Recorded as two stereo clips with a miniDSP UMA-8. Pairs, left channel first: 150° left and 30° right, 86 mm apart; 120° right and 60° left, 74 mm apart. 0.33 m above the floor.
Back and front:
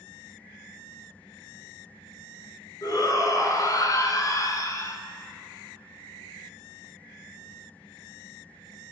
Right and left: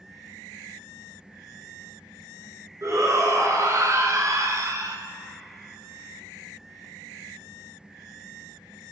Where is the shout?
105° left, 4.5 m; by 5.0 s 100° left, 3 m.